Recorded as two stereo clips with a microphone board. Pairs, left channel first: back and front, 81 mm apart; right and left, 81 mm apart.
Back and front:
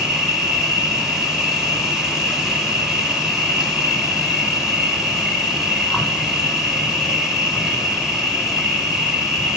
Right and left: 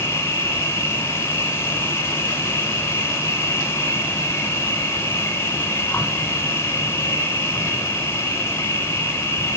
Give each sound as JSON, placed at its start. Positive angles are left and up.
{"t": 0.0, "sound": "an insect", "azimuth_deg": -80, "distance_m": 1.7}